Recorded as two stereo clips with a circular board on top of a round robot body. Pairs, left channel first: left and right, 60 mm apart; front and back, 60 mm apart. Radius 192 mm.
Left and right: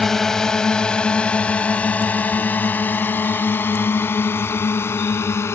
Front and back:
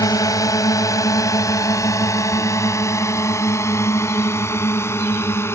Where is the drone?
5° left; by 5.5 s 45° left.